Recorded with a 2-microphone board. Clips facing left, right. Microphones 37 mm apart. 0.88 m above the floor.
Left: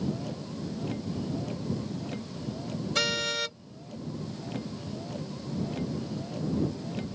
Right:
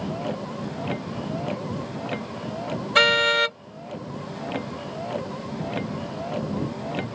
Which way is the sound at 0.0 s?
45° right (ahead or behind).